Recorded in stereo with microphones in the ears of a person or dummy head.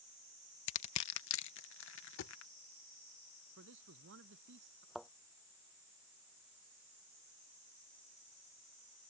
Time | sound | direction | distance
0.7 | crushing | 65° left (ahead or behind) | ?
2.2 | a thud | 65° left (ahead or behind) | ?
3.6 | a man speaking | 70° right (ahead or behind) | ?
5.0 | a thud | centre (ahead or behind) | ?